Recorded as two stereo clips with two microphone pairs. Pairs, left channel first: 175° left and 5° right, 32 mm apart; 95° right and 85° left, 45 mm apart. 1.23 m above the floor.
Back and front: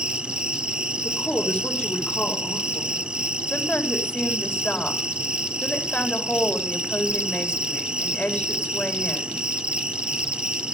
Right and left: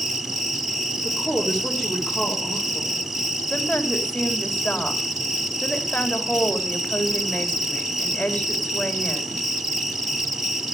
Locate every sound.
0.0 s an insect: 5° left, 0.9 m
1.0 s a woman speaking: 160° left, 3.5 m
3.5 s a woman speaking: 160° right, 3.5 m